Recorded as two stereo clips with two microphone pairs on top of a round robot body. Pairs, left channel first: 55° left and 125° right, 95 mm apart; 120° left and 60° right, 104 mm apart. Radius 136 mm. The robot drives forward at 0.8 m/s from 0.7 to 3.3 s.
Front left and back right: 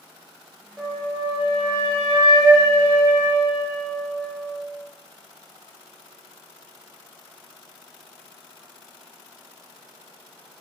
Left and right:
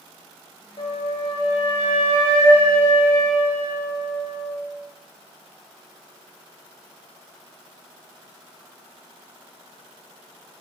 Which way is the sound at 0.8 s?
165° left.